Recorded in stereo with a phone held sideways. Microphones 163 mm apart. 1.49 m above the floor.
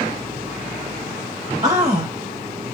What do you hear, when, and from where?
1.6 s a man speaking: 20° right (ahead or behind), 1.0 m